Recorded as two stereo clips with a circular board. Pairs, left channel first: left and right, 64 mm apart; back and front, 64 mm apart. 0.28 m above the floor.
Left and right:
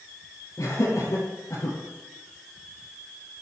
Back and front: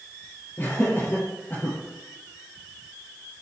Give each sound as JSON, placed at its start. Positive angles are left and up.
{"t": 0.6, "sound": "laughter", "azimuth_deg": 120, "distance_m": 7.5}